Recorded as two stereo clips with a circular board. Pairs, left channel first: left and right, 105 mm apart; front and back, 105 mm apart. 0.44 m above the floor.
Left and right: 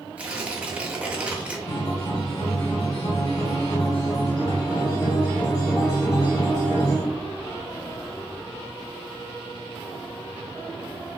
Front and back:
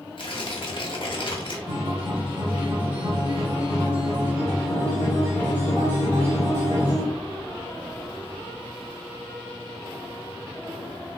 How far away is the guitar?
About 1.8 m.